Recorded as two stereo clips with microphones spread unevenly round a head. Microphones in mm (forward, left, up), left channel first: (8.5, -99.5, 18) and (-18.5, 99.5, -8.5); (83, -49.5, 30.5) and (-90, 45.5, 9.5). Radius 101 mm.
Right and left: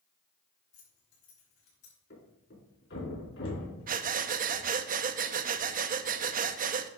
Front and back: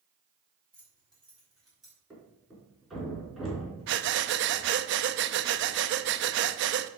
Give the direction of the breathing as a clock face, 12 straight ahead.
7 o'clock.